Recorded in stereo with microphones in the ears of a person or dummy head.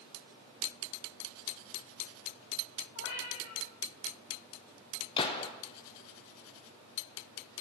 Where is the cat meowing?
65° left (ahead or behind), 3.5 m.